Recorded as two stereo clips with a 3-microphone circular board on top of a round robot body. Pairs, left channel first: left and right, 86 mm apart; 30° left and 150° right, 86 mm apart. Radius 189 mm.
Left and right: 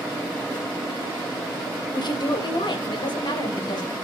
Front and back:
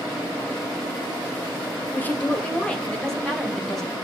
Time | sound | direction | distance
1.9 | a woman speaking | 90° left | 2 m